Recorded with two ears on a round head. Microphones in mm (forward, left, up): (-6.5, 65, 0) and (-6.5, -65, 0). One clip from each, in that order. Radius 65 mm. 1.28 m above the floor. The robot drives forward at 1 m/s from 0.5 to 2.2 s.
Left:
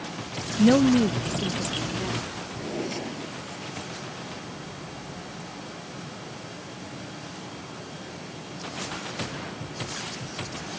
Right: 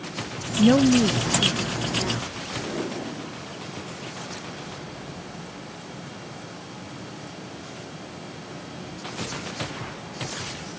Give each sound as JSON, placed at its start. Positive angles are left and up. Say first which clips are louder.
{"t": 0.6, "sound": "a woman speaking", "louder": "right 1 dB", "side_deg": 10}
{"t": 2.5, "sound": "a drawer", "louder": "right 1 dB", "side_deg": 40}